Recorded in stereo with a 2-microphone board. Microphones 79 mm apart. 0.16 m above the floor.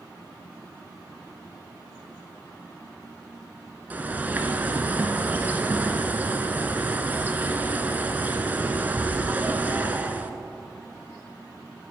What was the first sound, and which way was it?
A bird, 25° right (ahead or behind).